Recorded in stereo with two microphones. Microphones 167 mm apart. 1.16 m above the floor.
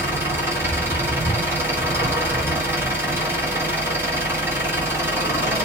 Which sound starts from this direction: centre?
An engine running, at 0.0 s.